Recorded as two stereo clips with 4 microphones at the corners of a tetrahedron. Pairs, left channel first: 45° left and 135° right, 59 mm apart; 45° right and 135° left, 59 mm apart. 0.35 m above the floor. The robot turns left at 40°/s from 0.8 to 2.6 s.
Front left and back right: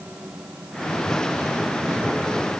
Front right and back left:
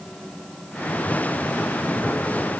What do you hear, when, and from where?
Only background noise.